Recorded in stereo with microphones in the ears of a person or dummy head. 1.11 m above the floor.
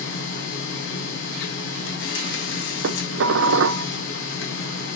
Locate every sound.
0.0 s a machine running: 65° left (ahead or behind), 1.5 m
2.8 s dishes clattering: 70° right (ahead or behind), 0.6 m